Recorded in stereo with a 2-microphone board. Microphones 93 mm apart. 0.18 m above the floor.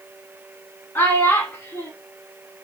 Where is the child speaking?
25° left (ahead or behind), 0.9 m.